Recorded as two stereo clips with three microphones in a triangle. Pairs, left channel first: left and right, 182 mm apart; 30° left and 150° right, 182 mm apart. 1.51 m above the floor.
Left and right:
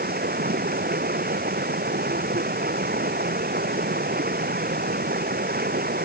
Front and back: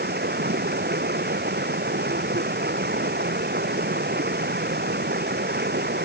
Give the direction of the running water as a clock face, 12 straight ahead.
4 o'clock.